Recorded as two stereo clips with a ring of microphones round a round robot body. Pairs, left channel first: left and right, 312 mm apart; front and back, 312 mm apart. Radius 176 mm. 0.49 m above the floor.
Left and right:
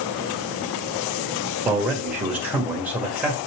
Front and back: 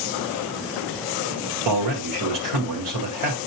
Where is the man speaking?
175° right, 1.9 m.